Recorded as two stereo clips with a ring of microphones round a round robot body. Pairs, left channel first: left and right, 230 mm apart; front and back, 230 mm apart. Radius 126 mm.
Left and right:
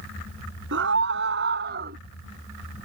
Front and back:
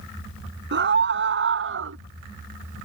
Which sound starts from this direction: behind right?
A scream, at 0.7 s.